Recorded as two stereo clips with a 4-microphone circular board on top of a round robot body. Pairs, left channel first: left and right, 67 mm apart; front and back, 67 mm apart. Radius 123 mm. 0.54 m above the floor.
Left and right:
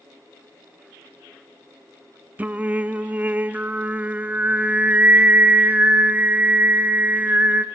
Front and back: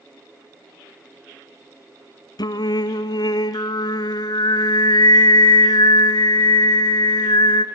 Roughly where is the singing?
Ahead.